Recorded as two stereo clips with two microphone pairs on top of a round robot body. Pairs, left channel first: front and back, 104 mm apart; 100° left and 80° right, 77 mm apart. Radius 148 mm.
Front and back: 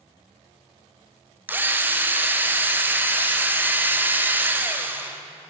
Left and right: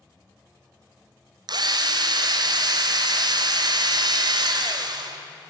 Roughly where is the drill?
Right.